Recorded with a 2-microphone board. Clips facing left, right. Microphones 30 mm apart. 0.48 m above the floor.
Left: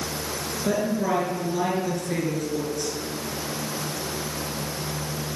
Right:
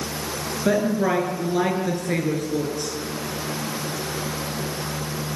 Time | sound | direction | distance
0.7 | a woman speaking | 35° right (ahead or behind) | 8.5 m